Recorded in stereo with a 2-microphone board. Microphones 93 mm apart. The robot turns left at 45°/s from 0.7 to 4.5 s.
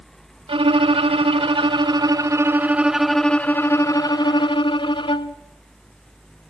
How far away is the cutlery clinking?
No cutlery clinking in this recording.